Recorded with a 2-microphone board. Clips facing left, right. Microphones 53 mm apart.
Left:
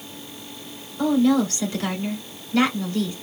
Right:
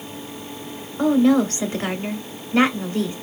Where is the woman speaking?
25° right (ahead or behind), 1.2 m.